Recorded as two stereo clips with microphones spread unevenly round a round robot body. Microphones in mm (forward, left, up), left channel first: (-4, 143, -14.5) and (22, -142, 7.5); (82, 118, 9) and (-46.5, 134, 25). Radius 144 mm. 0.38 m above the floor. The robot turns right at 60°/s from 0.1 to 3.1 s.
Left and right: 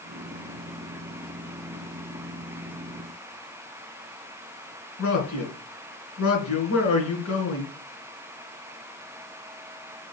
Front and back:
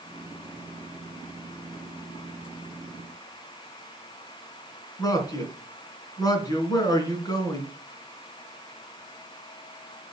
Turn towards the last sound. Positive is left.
turn(degrees=55)